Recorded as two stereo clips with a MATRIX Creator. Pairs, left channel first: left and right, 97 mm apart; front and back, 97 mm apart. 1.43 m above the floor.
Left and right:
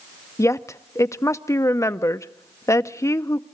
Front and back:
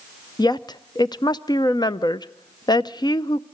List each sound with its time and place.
0.4 s a woman speaking: 35° left, 0.5 m